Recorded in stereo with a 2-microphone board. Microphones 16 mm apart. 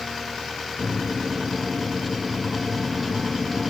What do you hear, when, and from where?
0.8 s a microwave: 5° left (ahead or behind), 0.6 m